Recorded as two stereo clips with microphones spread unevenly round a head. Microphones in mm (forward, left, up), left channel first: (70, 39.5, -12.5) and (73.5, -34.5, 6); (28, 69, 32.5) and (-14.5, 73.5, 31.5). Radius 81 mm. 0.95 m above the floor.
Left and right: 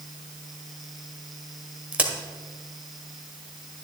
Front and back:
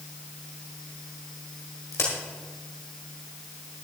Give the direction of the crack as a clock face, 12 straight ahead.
1 o'clock.